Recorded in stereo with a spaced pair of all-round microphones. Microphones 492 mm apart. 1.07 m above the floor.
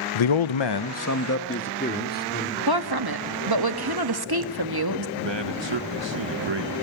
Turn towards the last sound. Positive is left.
turn(degrees=-60)  # may be behind; listen again after turning